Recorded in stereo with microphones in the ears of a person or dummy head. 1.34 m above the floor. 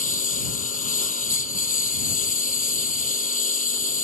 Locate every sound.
0.0 s a lawn mower: 50° left (ahead or behind)